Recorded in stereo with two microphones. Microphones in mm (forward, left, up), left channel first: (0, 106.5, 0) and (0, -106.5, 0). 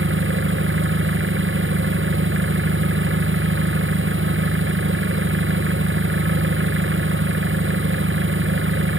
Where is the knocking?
No knocking in this recording.